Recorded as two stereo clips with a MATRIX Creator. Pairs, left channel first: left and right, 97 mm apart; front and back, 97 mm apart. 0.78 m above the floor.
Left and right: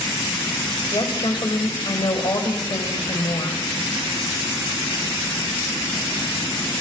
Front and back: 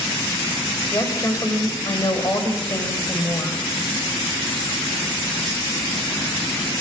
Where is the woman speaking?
50° left, 4.5 m.